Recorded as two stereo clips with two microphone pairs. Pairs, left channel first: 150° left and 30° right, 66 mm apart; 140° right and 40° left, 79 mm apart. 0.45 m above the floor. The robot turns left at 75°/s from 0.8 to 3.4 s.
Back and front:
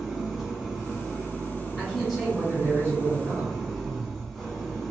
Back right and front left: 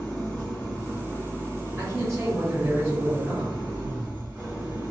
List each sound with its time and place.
0.0 s an engine running: 110° right, 1.0 m; by 4.9 s 55° left, 1.0 m
1.8 s a man speaking: 80° left, 1.5 m; by 3.5 s 40° right, 1.5 m